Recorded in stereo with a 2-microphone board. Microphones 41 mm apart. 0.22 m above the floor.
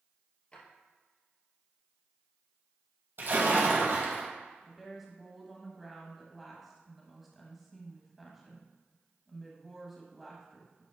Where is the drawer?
25° left (ahead or behind), 2 m.